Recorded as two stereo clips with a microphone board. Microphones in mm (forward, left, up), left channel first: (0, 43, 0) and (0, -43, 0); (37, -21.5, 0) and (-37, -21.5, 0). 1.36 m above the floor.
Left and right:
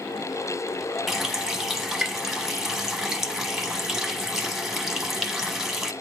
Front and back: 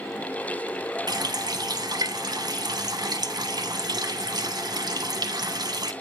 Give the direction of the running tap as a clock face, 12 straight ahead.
6 o'clock.